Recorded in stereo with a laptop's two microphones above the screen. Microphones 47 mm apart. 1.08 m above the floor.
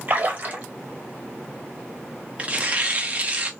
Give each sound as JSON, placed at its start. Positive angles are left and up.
{"t": 0.1, "sound": "a splash", "side_deg": -35, "distance_m": 1.3}
{"t": 2.4, "sound": "tearing paper", "side_deg": -30, "distance_m": 0.8}